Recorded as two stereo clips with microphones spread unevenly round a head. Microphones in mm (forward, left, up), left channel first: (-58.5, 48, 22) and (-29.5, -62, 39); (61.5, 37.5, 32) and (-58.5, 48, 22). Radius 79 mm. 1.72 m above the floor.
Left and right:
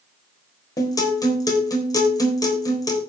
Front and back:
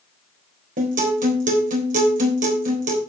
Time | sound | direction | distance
0.8 | a guitar | 165° left | 3.5 m